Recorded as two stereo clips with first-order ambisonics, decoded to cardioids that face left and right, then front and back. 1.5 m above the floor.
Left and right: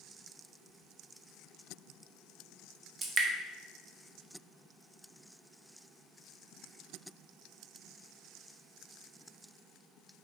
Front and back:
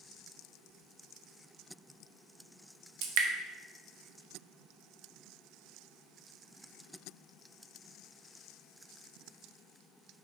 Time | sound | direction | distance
3.0 | dripping | 155° right | 0.6 m